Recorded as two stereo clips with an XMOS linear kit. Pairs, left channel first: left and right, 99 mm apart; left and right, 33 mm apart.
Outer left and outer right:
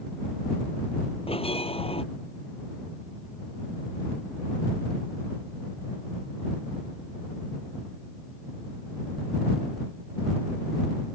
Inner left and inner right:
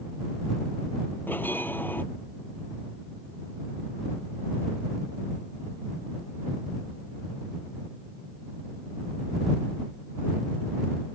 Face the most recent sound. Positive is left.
turn(degrees=75)  # may be behind; listen again after turning